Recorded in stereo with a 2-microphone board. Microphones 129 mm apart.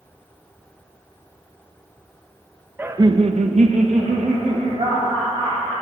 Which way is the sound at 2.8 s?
15° right (ahead or behind).